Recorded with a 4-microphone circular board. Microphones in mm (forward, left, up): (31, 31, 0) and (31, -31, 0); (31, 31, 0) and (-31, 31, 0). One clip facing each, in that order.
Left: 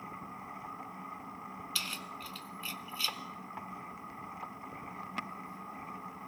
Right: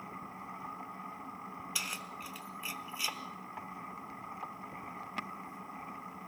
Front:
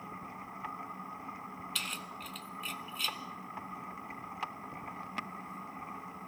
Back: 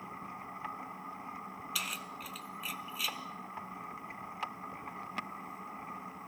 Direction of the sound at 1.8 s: 110° right.